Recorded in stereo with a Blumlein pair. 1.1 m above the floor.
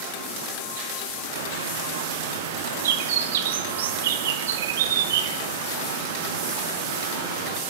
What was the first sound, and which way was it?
A bird, 60° right.